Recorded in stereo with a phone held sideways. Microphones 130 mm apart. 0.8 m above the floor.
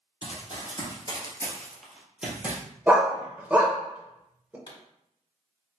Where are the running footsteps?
45° left (ahead or behind), 1.2 m; by 2.6 s 15° right (ahead or behind), 1.3 m.